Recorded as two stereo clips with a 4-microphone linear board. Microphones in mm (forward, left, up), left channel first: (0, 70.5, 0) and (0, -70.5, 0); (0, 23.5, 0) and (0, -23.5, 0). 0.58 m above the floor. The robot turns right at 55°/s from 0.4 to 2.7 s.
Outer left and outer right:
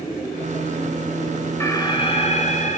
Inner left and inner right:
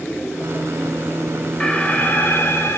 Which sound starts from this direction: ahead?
An alarm, at 1.6 s.